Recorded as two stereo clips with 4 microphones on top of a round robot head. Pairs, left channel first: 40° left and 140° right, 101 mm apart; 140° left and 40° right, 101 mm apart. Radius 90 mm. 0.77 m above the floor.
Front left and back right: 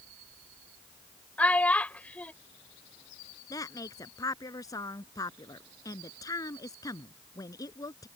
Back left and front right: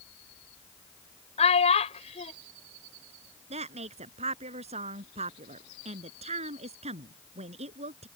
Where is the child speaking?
115° left.